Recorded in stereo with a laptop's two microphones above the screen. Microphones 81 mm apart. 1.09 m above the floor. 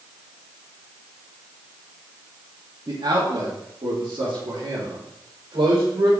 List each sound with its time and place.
2.9 s a man speaking: 65° right (ahead or behind), 1.8 m; by 6.1 s 85° right, 3.5 m